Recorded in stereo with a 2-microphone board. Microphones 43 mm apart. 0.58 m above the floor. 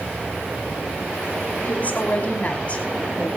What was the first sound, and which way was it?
A woman speaking, 40° left (ahead or behind).